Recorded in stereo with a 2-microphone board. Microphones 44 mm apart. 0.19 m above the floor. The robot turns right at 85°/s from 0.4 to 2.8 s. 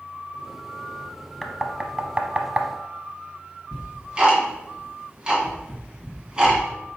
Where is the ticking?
15° right (ahead or behind), 1.6 m.